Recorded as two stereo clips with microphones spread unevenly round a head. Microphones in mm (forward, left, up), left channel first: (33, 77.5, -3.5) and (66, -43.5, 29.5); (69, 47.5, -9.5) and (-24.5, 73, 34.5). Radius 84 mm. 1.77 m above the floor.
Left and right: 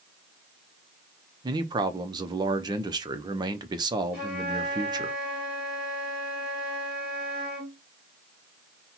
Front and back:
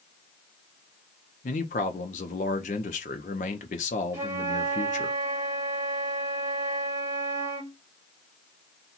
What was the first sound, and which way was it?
A man speaking, 45° right.